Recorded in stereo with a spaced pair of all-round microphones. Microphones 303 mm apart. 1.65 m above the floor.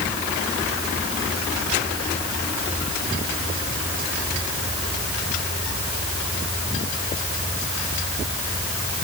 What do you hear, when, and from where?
Only background noise.